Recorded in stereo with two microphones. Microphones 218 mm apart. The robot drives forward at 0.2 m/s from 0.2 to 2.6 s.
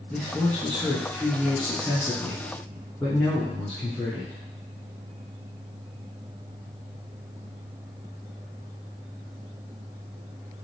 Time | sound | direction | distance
0.1 | a man speaking | 5° left (ahead or behind) | 1.2 m